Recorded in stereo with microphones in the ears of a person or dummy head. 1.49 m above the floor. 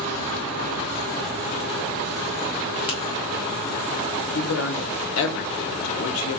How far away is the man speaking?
About 0.7 m.